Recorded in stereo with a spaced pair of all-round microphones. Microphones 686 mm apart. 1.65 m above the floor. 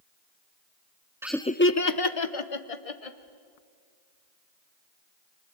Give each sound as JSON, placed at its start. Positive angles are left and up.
{"t": 1.2, "sound": "laughter", "side_deg": -5, "distance_m": 0.6}